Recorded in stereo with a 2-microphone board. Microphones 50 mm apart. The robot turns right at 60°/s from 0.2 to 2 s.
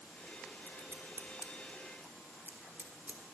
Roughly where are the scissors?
Right.